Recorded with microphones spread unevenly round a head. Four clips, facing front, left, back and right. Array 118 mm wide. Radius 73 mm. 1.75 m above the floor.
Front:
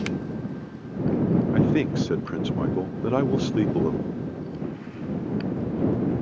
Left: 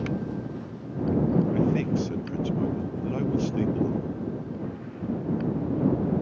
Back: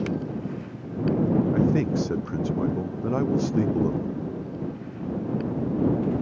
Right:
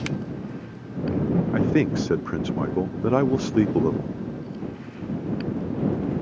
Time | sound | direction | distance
1.5 | a man speaking | 65° right | ?